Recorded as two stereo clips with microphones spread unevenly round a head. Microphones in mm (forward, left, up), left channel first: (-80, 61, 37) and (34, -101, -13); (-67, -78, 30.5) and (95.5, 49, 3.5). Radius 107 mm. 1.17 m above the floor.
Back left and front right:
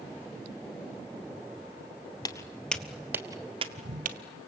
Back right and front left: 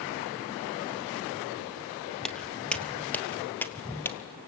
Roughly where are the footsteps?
Behind left.